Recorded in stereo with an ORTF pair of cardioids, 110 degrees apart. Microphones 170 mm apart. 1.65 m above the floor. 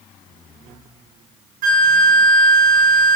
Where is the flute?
60° right, 1.3 m.